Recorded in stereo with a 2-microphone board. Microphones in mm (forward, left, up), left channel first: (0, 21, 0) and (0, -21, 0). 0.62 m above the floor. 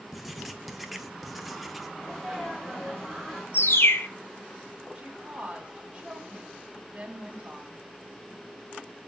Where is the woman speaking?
40° right (ahead or behind), 1.9 m.